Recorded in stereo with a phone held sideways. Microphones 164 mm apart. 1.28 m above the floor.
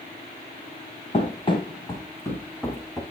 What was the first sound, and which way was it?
Running footsteps, 40° left (ahead or behind).